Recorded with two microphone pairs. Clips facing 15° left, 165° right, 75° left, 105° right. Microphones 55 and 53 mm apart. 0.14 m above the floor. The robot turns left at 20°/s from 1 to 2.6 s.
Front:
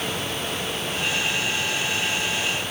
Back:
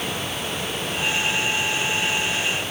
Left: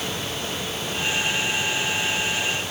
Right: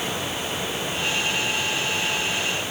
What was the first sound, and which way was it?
Only background noise.